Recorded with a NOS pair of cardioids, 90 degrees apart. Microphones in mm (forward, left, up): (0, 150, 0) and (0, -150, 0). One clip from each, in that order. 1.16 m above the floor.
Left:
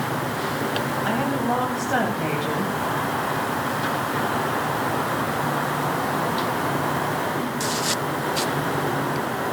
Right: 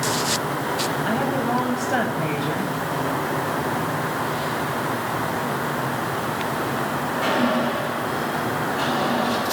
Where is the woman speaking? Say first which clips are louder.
Right 1 dB; 5° right, 8.5 m.